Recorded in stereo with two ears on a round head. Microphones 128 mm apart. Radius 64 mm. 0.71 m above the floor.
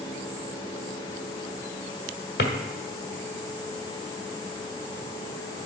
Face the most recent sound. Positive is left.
turn(degrees=85)